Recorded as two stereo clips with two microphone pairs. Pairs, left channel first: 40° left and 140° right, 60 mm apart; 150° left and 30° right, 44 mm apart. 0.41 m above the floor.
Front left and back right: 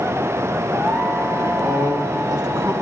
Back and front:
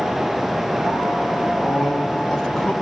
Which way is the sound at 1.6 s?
140° right.